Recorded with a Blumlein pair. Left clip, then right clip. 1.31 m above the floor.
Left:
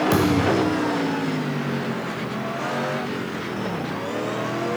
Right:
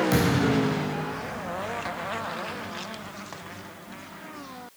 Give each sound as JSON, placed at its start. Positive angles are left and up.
{"t": 0.1, "sound": "a thud", "azimuth_deg": 10, "distance_m": 3.0}